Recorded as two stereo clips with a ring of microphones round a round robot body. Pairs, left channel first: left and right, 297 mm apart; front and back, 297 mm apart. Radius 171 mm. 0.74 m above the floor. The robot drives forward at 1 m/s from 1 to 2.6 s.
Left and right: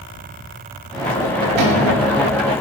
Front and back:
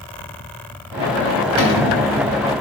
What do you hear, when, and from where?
1.6 s a cupboard door: 45° right, 2 m; by 2.0 s 55° right, 1.8 m